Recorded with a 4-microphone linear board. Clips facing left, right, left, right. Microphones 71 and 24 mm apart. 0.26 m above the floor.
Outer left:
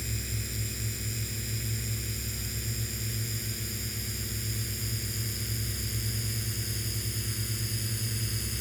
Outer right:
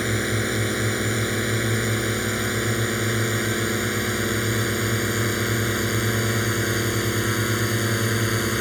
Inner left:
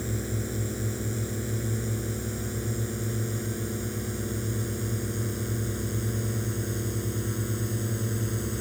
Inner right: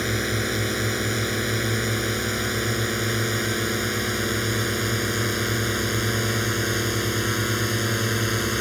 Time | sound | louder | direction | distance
0.0 | a drone | outer right 16 dB, inner right 8 dB | 70° right (ahead or behind) | ?